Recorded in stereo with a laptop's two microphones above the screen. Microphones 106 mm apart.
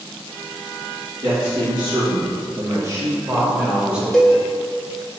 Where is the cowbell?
5° left (ahead or behind), 0.7 m.